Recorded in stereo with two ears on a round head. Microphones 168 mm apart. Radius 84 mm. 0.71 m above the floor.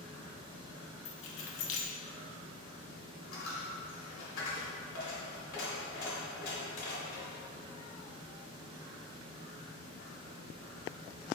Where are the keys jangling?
65° left (ahead or behind), 0.7 m.